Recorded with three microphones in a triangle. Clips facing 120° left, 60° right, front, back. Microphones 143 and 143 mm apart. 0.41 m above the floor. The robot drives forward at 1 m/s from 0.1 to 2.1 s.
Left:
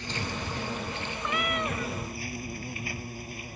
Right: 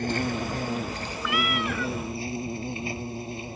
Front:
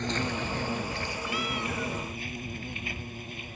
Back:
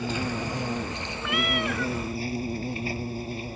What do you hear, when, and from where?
0.0 s an insect: 95° right; by 3.6 s 125° right
1.2 s a cat meowing: 170° left; by 1.9 s 175° left